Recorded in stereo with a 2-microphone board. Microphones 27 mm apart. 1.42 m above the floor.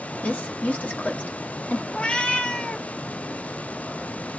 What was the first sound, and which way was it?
A woman speaking, 70° left (ahead or behind).